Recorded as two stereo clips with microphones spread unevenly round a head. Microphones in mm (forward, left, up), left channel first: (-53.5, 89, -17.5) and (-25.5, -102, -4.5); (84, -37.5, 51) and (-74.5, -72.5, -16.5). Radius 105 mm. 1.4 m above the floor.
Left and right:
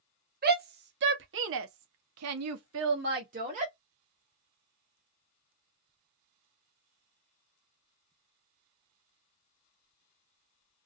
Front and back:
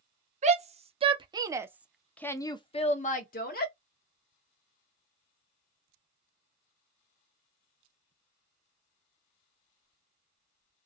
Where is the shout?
125° right, 1.3 m; by 3.7 s 20° right, 1.1 m.